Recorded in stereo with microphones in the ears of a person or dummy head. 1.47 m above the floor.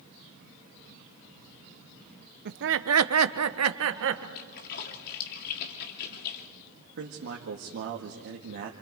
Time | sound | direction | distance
2.5 | laughter | 55° right (ahead or behind) | 1.0 m
4.3 | a splash | 50° left (ahead or behind) | 2.5 m
7.0 | a man speaking | 60° right (ahead or behind) | 1.8 m